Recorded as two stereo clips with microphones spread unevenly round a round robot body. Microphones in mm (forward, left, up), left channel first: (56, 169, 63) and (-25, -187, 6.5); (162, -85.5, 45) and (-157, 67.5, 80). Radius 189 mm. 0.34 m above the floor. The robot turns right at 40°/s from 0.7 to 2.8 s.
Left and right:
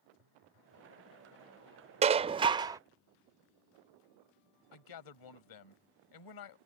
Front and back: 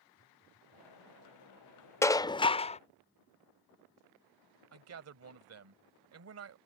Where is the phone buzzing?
90° right; by 0.9 s 80° right.